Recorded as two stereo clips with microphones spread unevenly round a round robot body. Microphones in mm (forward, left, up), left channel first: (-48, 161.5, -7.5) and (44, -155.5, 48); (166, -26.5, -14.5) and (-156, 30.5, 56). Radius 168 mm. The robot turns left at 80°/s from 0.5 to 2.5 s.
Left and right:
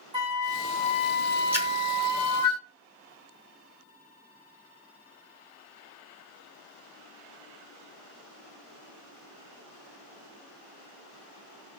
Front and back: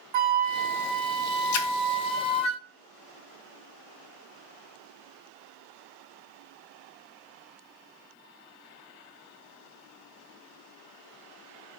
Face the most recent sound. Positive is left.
turn(degrees=-65)